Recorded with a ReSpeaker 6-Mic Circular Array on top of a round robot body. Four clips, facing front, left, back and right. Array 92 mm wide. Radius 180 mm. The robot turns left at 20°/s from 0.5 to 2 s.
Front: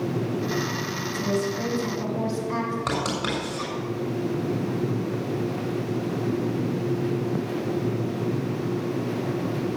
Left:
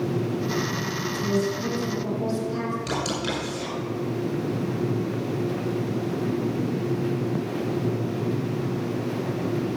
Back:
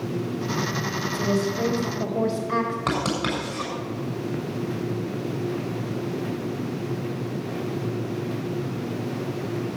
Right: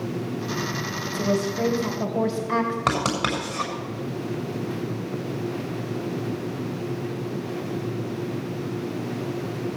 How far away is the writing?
About 6.5 m.